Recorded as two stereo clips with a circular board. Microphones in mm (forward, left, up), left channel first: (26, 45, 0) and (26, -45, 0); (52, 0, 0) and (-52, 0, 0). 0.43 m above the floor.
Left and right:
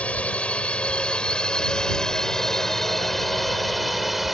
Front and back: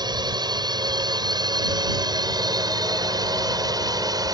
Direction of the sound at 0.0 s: 160° left.